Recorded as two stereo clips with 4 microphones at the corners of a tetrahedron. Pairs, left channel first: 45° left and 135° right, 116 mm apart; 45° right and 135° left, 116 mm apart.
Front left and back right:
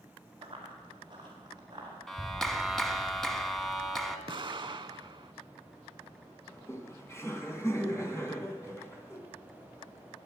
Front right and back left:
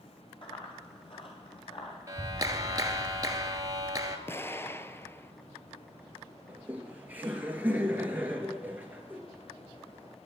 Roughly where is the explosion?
Right.